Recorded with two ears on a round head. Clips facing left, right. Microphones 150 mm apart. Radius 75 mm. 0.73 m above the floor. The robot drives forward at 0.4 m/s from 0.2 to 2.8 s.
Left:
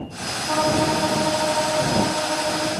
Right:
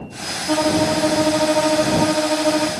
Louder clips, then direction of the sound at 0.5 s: Right 3 dB; 40° right (ahead or behind).